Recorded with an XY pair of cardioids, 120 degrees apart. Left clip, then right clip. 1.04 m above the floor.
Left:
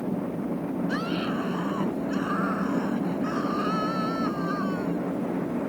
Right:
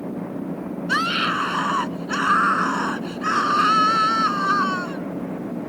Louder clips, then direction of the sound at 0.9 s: Right 12 dB; 70° right.